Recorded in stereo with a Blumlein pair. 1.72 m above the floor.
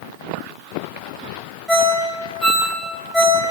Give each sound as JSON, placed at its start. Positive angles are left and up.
{"t": 1.7, "sound": "a ringtone", "azimuth_deg": 10, "distance_m": 2.5}